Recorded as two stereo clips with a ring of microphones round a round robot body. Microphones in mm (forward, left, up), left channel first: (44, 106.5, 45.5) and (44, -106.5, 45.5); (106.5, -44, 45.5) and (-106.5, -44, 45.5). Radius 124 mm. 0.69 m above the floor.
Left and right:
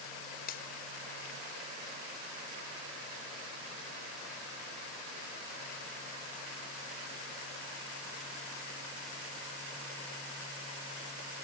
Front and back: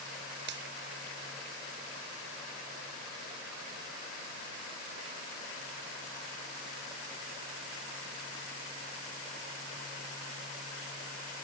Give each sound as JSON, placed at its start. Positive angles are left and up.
{"t": 0.5, "sound": "a finger snap", "azimuth_deg": 140}